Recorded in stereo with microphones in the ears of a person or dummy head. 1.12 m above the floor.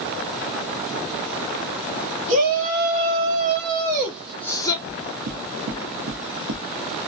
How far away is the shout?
About 1.2 m.